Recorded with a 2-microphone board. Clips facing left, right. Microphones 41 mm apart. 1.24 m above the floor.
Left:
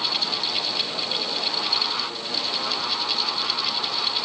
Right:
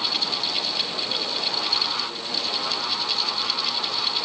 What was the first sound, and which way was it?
Only background noise.